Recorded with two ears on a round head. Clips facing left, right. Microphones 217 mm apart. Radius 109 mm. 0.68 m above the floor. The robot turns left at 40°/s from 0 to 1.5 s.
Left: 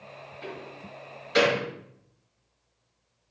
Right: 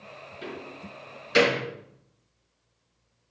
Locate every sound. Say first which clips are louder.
0.4 s a door slam: right 2 dB; 75° right (ahead or behind), 5.5 m; by 1.6 s 35° right (ahead or behind), 5.5 m